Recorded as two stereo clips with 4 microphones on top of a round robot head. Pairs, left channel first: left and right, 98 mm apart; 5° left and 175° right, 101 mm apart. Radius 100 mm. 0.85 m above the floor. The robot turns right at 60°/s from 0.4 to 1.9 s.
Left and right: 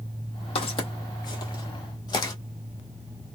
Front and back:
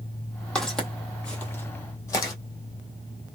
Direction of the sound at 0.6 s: 80° left.